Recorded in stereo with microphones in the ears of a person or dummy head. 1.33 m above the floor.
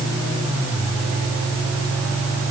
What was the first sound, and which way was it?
Only background noise.